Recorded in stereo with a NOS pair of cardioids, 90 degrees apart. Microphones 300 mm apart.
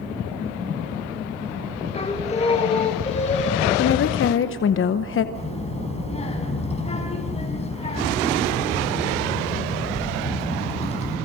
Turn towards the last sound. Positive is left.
turn(degrees=20)